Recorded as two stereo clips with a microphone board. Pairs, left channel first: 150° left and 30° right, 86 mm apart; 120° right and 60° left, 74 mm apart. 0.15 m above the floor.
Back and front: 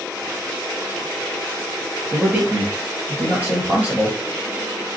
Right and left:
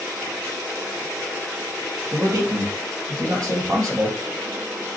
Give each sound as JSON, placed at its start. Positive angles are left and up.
{"t": 2.1, "sound": "a man speaking", "azimuth_deg": 35, "distance_m": 2.5}